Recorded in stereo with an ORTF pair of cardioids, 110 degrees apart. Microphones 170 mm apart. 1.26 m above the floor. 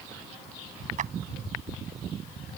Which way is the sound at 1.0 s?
50° right.